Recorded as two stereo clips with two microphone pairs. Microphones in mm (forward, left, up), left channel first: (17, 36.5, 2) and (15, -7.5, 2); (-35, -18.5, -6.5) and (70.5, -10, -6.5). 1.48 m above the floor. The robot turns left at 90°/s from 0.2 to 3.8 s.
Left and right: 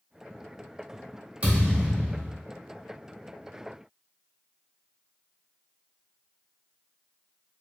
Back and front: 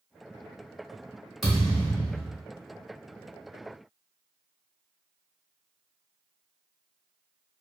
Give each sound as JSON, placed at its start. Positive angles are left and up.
{"t": 1.4, "sound": "a thud", "azimuth_deg": -80, "distance_m": 1.2}